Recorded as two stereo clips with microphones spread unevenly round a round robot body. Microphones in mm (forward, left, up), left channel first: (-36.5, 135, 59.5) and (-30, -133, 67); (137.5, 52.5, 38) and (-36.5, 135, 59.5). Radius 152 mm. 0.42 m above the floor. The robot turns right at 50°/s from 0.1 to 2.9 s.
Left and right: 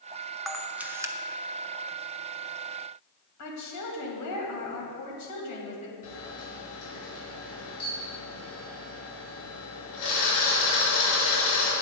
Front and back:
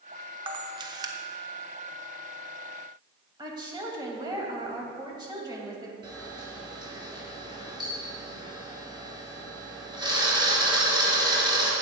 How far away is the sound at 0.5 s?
About 0.9 m.